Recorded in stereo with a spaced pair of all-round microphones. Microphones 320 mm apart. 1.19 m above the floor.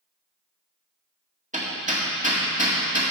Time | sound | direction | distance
1.5 | hammering | 25° right (ahead or behind) | 1.9 m